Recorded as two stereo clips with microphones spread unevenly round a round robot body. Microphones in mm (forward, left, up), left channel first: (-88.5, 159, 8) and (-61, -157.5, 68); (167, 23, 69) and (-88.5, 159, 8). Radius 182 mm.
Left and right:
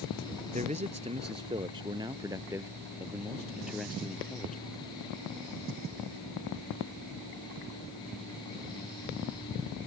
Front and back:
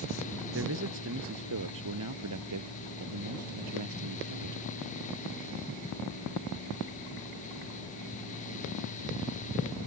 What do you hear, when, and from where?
0.5 s a man speaking: 155° right; by 4.7 s straight behind